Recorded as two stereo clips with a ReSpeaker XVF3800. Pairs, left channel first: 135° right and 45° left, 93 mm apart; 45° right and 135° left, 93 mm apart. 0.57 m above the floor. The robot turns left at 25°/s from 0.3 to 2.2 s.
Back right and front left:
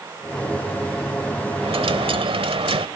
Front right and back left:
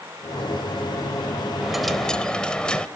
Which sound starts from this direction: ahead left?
A dropped coin, at 1.6 s.